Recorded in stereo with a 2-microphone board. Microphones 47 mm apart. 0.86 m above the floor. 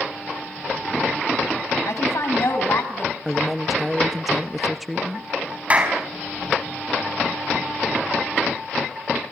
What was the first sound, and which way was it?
A woman speaking, 75° left (ahead or behind).